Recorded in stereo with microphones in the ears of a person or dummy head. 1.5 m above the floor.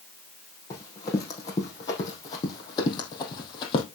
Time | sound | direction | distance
0.7 | running footsteps | 25° left (ahead or behind) | 4 m